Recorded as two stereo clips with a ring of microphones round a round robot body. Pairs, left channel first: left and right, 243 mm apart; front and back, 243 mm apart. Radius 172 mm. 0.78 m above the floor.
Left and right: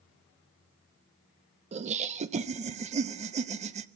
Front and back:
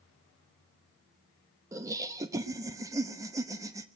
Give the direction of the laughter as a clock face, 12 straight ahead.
4 o'clock.